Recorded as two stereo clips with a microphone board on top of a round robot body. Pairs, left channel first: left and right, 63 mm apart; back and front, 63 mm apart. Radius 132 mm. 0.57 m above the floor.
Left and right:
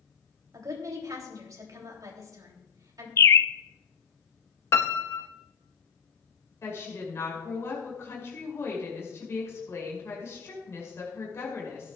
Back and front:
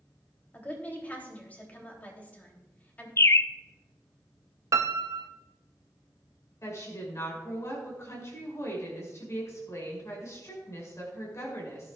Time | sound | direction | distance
0.5 | a woman speaking | 115° right | 3 m
3.2 | a bird | 135° left | 0.5 m
4.7 | a piano | 40° left | 0.7 m
6.6 | a woman speaking | 140° left | 5.5 m